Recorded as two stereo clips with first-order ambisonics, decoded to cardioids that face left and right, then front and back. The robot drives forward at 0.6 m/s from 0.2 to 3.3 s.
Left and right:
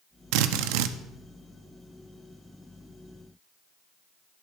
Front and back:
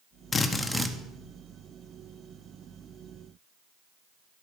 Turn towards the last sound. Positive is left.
turn(degrees=-155)